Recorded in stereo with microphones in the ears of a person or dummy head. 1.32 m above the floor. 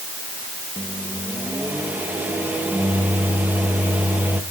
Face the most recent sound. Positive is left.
turn(degrees=-10)  # may be behind; listen again after turning